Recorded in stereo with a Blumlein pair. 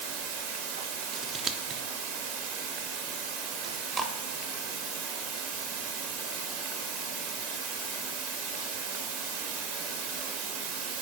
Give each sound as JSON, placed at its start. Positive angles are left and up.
{"t": 0.0, "sound": "running water", "azimuth_deg": -55, "distance_m": 1.7}
{"t": 1.1, "sound": "scissors", "azimuth_deg": -25, "distance_m": 0.7}
{"t": 3.6, "sound": "chewing", "azimuth_deg": -25, "distance_m": 1.0}